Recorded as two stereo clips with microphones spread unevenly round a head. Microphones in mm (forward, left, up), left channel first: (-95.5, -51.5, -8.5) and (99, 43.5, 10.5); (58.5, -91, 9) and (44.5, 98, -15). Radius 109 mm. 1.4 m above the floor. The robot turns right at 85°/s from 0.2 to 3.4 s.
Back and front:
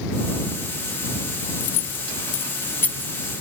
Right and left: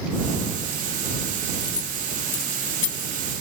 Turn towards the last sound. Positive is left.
turn(degrees=-25)